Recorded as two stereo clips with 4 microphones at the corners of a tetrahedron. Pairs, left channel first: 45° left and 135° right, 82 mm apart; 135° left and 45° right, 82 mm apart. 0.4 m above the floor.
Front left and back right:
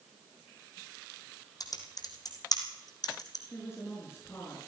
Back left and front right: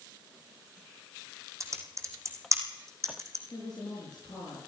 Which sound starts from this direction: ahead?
Typing on a keyboard, at 1.6 s.